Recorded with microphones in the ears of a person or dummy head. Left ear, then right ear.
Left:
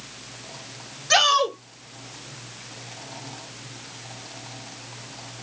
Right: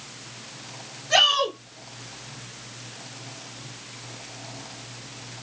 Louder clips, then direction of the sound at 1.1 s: Left 1 dB; 75° left (ahead or behind).